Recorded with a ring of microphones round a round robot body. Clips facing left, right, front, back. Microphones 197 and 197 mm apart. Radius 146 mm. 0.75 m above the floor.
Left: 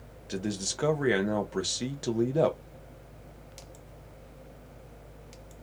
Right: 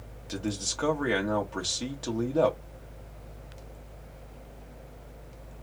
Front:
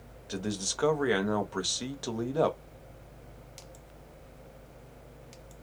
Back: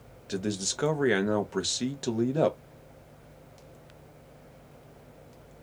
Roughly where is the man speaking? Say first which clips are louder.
Even, back 3 dB; behind left.